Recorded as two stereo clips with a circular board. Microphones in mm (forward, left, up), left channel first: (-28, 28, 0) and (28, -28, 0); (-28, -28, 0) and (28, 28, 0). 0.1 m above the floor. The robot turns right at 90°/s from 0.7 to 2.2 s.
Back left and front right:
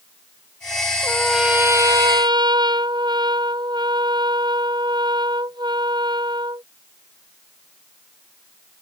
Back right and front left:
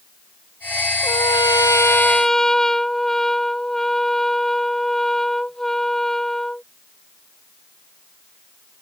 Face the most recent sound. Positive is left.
turn(degrees=-50)